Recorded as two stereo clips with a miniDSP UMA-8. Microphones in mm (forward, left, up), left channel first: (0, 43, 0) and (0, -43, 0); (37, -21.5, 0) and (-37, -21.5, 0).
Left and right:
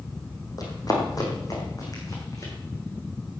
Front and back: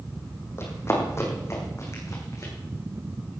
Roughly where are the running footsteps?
Ahead left.